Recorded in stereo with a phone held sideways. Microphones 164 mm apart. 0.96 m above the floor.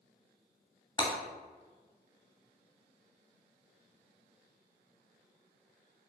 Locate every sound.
1.0 s breaking glass: 25° left (ahead or behind), 2 m